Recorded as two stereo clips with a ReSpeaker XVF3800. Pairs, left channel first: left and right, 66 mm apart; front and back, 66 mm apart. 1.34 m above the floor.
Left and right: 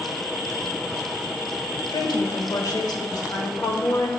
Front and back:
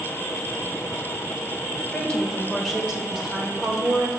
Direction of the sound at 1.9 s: 75° left.